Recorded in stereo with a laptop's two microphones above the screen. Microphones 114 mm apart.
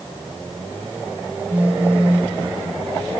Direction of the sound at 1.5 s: 15° right (ahead or behind).